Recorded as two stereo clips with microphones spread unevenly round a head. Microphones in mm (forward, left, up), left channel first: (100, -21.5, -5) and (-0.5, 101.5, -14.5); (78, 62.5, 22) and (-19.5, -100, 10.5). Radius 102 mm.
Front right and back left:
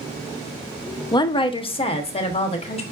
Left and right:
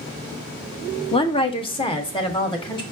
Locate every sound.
1.1 s a woman speaking: 5° left, 0.5 m; by 2.8 s 5° right, 1.4 m